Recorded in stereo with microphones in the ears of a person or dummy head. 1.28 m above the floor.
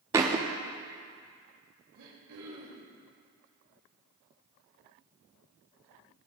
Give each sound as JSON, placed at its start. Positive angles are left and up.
{"t": 0.1, "sound": "a thud", "side_deg": -15, "distance_m": 0.7}
{"t": 1.9, "sound": "throat clearing", "side_deg": -80, "distance_m": 2.5}